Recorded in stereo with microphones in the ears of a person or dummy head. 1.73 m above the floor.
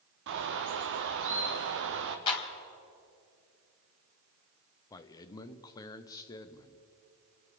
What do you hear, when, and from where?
0.3 s a bird: 70° right (ahead or behind), 0.9 m
2.3 s a clap: 30° left (ahead or behind), 2.5 m
4.9 s a man speaking: 15° left (ahead or behind), 0.8 m